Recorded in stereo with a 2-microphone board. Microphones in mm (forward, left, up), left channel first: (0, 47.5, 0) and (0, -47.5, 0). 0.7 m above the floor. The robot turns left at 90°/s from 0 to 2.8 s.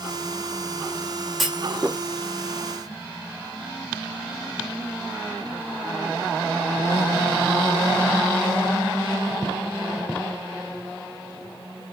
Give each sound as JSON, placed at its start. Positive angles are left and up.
{"t": 1.4, "sound": "a clunk", "side_deg": 0, "distance_m": 0.7}